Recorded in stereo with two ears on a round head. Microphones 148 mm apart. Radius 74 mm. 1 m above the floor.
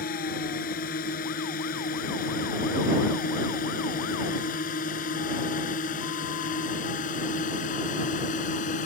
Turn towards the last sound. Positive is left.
turn(degrees=50)  # may be behind; listen again after turning